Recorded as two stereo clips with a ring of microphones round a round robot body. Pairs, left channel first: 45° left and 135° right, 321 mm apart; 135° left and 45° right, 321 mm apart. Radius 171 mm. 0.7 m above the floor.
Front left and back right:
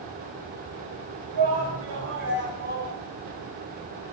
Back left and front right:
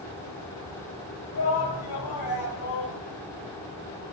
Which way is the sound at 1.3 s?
Straight behind.